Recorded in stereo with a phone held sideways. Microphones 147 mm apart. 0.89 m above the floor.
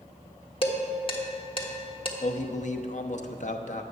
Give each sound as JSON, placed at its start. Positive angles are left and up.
{"t": 0.6, "sound": "dishes clattering", "side_deg": 35, "distance_m": 1.2}
{"t": 2.2, "sound": "a man speaking", "side_deg": 60, "distance_m": 0.8}